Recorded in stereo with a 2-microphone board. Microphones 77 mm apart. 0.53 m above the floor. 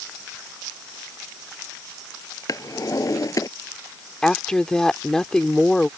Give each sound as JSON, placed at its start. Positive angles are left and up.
{"t": 2.5, "sound": "a drawer", "side_deg": 45}
{"t": 4.2, "sound": "a woman speaking", "side_deg": 10}